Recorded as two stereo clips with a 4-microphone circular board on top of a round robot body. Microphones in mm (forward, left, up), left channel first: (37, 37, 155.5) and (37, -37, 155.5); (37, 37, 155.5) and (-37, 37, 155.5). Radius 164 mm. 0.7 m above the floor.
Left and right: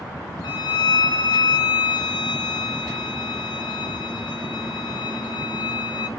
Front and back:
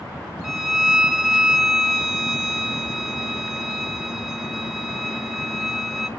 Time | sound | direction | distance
0.4 | a violin | 95° left | 2 m